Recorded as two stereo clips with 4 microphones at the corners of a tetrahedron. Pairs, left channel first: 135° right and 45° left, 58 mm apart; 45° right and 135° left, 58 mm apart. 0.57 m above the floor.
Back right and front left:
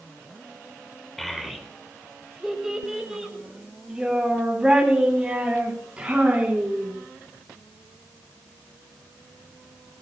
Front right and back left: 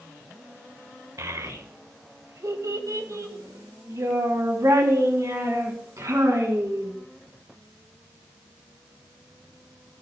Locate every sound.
1.2 s a child speaking: 140° left, 1.8 m; by 6.9 s 115° left, 5 m